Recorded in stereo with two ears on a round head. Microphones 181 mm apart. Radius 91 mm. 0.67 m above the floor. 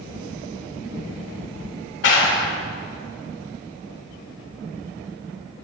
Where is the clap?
60° left (ahead or behind), 2 m.